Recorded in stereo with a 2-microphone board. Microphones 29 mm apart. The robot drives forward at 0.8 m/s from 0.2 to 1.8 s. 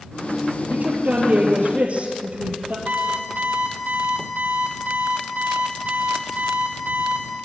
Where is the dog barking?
No dog barking in this recording.